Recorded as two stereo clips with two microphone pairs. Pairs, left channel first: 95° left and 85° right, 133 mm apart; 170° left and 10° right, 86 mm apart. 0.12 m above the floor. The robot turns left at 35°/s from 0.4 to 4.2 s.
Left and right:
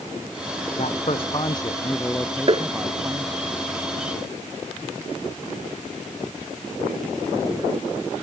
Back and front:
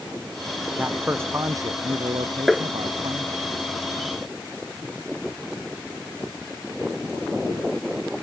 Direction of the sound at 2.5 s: 100° right.